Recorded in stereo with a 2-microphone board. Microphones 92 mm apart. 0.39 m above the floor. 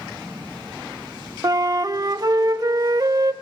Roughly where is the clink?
I don't hear a clink.